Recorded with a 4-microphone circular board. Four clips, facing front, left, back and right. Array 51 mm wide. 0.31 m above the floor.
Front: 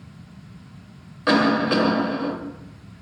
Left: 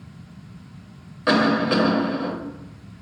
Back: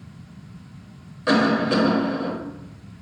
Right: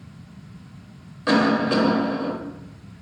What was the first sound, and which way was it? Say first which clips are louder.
A cough: even, front 1 dB; 40° left.